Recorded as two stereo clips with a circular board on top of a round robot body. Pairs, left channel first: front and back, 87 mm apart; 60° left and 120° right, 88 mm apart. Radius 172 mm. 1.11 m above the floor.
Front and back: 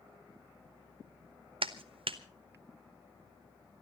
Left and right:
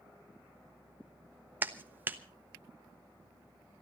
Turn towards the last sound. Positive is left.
turn(degrees=170)